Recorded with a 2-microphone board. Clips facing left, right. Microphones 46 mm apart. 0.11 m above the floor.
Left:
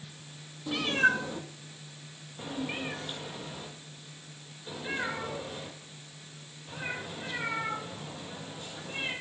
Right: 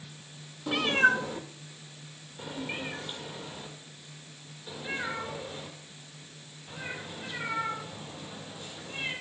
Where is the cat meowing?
35° right (ahead or behind), 0.6 m; by 9.1 s 25° left (ahead or behind), 6.5 m.